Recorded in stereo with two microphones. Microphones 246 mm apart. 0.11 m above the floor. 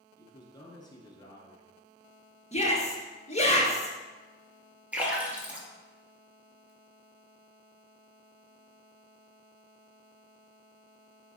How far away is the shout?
About 1.8 m.